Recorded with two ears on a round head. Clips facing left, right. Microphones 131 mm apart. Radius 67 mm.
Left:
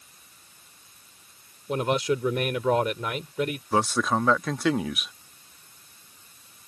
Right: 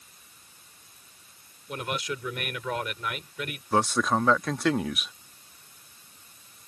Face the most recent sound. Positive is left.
turn(degrees=0)  # may be behind; listen again after turning